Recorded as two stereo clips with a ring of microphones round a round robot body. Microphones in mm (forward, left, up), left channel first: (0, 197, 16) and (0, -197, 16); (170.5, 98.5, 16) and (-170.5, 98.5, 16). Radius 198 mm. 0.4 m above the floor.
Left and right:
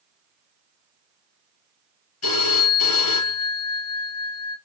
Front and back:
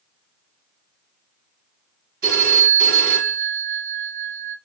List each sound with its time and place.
2.2 s a phone ringing: 145° left, 4 m